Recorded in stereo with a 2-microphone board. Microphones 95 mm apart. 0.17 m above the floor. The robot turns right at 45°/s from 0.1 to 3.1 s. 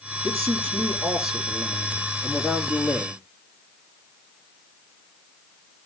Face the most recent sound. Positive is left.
turn(degrees=10)